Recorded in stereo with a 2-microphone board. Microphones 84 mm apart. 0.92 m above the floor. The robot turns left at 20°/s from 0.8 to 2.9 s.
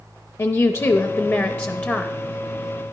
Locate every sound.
0.4 s a woman speaking: 40° left (ahead or behind), 0.6 m; by 2.1 s 15° left (ahead or behind), 0.6 m